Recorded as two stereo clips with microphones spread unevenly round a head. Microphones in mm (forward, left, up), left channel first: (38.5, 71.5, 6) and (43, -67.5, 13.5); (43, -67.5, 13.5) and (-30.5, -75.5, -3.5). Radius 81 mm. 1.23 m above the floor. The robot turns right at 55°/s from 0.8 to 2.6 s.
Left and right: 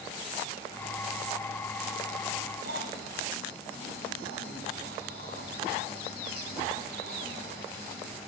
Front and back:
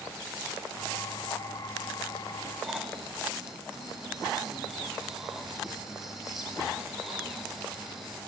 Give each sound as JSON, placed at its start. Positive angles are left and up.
{"t": 2.6, "sound": "snoring", "azimuth_deg": -85, "distance_m": 3.0}